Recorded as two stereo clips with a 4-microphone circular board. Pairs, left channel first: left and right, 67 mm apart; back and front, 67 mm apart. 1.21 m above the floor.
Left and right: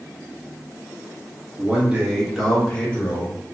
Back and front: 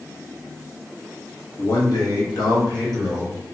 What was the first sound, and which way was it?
A man speaking, 155° right.